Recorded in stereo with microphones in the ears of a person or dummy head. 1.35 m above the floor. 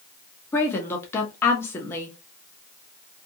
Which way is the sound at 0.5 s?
15° left (ahead or behind).